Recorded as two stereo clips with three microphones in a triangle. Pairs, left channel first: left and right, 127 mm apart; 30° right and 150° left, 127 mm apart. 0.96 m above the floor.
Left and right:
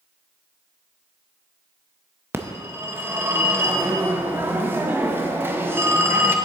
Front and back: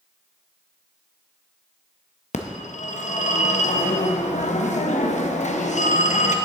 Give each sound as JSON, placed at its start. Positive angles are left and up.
{"t": 2.3, "sound": "a phone ringing", "azimuth_deg": -15, "distance_m": 0.6}